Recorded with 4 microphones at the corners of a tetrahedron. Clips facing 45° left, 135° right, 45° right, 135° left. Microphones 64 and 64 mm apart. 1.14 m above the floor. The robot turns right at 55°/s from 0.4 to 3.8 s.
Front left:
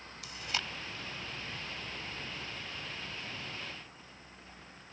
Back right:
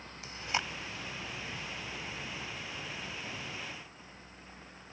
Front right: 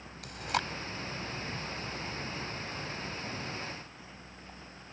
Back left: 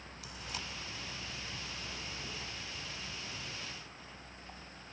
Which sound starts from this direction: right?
Chewing, at 0.2 s.